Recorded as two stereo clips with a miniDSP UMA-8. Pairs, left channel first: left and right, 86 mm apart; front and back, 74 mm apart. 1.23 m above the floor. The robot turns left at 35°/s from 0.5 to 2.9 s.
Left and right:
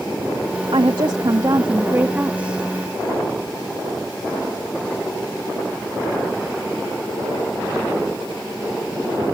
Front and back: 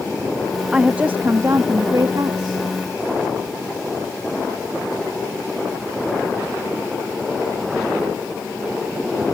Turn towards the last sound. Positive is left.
turn(degrees=180)